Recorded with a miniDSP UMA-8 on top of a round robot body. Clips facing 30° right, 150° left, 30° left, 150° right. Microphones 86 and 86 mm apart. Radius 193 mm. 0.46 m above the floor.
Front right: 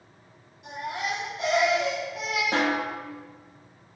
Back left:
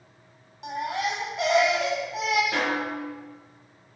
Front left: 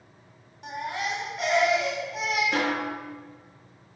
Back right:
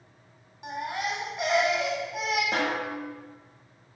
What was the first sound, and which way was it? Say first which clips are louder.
A baby crying: back left 3 dB, even; 135° left.